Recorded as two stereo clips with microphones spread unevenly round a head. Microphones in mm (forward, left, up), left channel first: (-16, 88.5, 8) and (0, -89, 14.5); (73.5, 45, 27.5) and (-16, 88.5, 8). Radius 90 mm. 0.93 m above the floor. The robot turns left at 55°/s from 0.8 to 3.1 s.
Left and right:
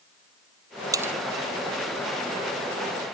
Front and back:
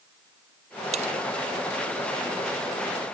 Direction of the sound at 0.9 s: 155° right.